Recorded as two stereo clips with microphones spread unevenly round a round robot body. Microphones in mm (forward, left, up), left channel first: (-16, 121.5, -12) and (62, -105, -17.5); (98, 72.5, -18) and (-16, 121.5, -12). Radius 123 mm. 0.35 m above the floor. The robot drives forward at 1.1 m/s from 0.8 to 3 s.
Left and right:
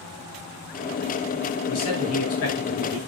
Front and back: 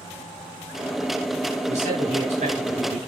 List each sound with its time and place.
1.7 s a man speaking: 140° left, 4.5 m; by 3.0 s 150° left, 5.5 m